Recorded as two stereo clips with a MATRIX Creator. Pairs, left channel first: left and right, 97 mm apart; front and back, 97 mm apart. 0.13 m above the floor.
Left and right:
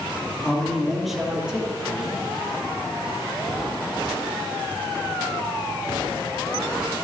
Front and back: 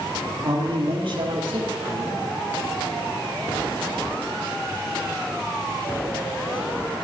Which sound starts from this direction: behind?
A man speaking, at 0.4 s.